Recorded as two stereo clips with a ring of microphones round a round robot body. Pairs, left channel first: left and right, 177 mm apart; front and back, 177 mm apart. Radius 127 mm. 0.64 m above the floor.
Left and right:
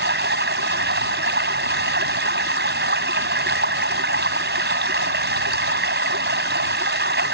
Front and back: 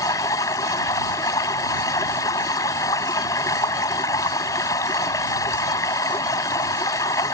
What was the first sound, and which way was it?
Running water, 80° right.